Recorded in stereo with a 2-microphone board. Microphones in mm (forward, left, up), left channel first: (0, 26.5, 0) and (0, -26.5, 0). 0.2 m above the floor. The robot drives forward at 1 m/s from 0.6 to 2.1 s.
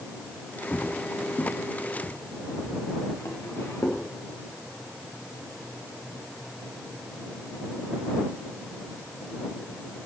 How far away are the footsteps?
About 0.7 m.